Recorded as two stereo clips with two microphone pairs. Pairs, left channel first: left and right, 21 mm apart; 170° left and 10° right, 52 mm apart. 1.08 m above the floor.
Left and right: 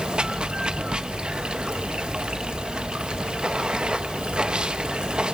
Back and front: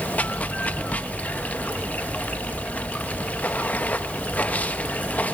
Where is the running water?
130° right, 0.8 m.